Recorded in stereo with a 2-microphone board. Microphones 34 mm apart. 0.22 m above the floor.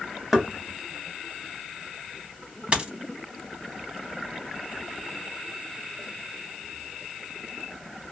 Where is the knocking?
5° right (ahead or behind), 0.9 m.